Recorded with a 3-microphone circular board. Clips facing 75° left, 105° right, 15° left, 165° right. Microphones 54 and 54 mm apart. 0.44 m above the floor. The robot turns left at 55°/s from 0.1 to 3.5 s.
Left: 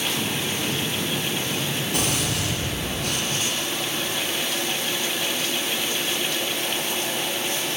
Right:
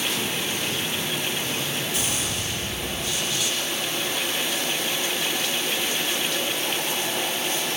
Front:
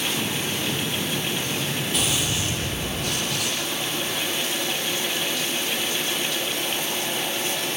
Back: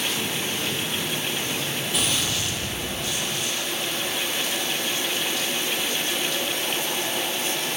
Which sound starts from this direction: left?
A gunshot, at 1.9 s.